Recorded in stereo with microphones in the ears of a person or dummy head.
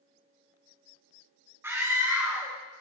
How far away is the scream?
About 1.6 m.